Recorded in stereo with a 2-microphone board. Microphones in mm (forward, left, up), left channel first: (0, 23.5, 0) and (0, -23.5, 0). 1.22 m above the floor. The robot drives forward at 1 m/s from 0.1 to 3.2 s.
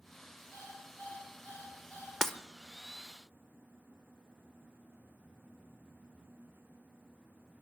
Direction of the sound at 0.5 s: 60° left (ahead or behind).